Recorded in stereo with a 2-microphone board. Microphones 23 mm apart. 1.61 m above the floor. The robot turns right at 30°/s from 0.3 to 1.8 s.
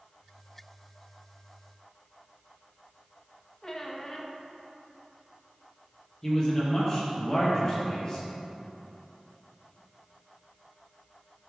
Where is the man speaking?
30° left (ahead or behind), 1.7 m.